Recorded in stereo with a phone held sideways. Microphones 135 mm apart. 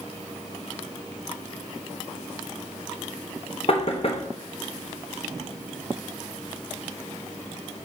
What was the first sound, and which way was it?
Knocking, 45° left (ahead or behind).